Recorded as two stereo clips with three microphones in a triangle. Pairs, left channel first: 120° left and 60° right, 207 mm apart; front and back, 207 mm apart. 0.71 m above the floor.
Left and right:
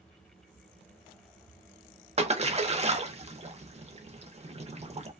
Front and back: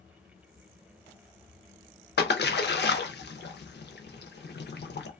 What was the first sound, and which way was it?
A splash, 10° right.